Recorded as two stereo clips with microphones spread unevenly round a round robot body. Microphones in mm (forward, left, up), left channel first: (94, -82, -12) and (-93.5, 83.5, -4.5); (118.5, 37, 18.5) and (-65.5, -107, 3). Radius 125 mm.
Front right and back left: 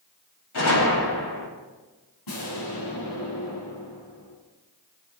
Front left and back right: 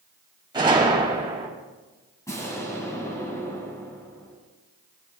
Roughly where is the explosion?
Ahead right.